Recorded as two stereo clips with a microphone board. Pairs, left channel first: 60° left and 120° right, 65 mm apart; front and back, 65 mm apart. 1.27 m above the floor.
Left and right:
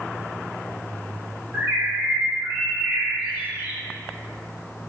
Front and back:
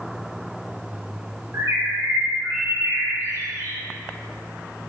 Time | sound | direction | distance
1.5 | a bird | 170° right | 0.7 m